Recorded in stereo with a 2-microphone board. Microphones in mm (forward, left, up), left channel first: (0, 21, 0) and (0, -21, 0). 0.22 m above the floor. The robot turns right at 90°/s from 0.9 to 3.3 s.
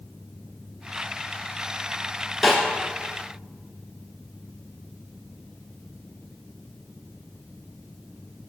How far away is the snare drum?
About 1.7 m.